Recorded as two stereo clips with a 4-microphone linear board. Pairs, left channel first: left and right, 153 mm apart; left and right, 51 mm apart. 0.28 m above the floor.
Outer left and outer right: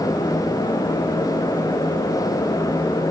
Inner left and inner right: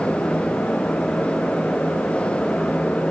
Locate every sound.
Only background noise.